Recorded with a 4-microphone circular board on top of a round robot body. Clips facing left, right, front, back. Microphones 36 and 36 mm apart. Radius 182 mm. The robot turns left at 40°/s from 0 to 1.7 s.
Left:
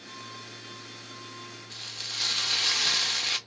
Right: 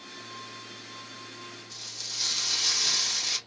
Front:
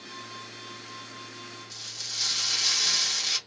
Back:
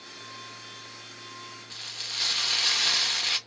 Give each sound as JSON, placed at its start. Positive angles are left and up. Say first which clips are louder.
{"t": 1.7, "sound": "frying", "louder": "left 5 dB, back 4 dB", "azimuth_deg": 130, "distance_m": 1.0}